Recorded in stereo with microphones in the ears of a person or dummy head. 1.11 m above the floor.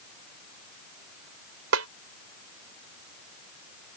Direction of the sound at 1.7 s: 85° right.